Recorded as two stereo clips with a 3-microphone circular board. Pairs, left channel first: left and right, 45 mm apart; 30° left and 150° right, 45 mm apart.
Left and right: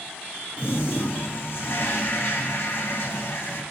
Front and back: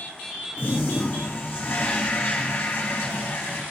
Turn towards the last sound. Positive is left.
turn(degrees=60)